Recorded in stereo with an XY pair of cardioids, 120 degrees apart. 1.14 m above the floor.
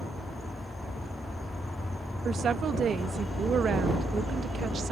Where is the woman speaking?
40° right.